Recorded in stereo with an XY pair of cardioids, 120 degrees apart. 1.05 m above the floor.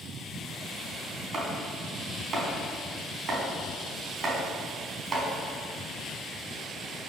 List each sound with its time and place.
1.3 s chopping: 40° right, 4.5 m